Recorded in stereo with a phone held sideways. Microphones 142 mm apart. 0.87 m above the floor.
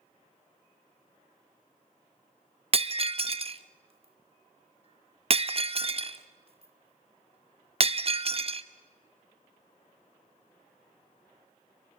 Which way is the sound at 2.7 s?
45° right (ahead or behind).